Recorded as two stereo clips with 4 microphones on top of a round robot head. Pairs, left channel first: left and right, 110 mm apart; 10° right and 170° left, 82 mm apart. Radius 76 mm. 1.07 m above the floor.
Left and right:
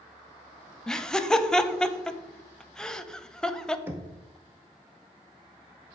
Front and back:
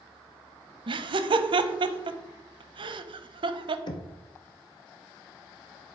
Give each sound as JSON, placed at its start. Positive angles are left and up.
{"t": 0.9, "sound": "laughter", "azimuth_deg": 175, "distance_m": 0.7}
{"t": 3.9, "sound": "knocking", "azimuth_deg": -20, "distance_m": 0.7}